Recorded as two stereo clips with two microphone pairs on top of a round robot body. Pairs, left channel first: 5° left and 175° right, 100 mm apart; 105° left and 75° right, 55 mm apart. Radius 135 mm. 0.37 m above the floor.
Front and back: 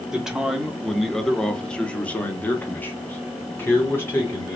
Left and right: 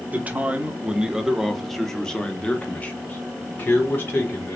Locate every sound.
0.1 s a man speaking: 90° right, 1.3 m; by 4.6 s 65° left, 1.9 m